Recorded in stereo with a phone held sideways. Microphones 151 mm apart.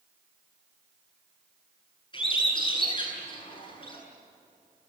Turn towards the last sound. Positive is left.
turn(degrees=30)  # may be behind; listen again after turning